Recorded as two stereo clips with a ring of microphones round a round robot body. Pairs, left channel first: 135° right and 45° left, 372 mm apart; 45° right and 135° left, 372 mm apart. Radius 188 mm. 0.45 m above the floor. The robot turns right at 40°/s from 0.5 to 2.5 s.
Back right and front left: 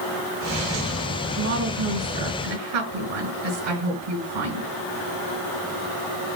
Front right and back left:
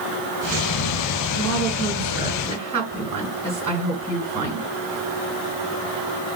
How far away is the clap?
No clap in this recording.